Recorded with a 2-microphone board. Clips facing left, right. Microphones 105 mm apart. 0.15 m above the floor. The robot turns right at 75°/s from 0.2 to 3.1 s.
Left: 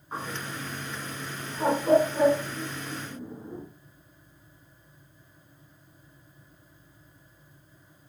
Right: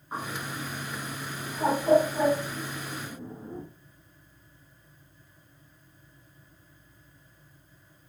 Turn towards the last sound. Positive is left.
turn(degrees=-20)  # may be behind; listen again after turning